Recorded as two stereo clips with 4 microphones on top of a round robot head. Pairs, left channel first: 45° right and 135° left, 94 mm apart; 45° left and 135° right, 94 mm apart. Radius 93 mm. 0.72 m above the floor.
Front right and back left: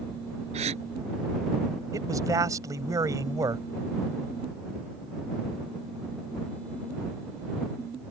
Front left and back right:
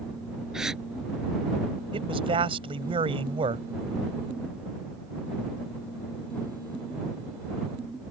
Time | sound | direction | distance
0.5 | a gasp | 140° left | ?
1.9 | a man speaking | 165° right | ?